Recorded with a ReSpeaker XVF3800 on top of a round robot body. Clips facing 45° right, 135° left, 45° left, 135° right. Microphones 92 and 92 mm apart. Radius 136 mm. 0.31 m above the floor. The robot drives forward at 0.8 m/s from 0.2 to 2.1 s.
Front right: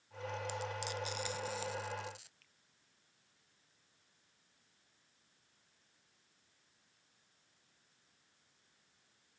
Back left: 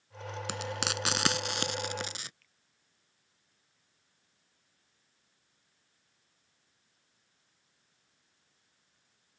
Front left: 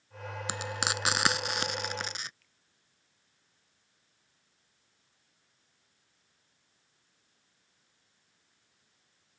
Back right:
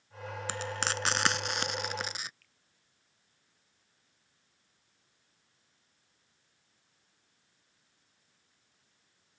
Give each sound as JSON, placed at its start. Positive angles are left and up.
{"t": 0.5, "sound": "frying", "azimuth_deg": 120}
{"t": 2.4, "sound": "a finger snap", "azimuth_deg": -95}